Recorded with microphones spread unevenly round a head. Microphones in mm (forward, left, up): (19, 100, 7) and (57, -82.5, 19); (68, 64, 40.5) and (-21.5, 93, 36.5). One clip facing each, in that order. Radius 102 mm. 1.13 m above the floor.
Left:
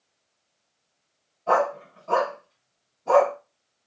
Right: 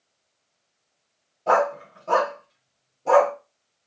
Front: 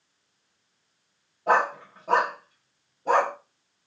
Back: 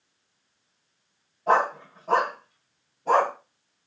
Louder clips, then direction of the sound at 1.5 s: Right 2 dB, back 1 dB; 100° right.